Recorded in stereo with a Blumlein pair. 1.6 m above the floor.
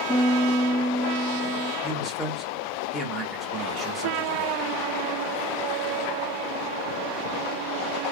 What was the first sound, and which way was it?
A piano, 5° right.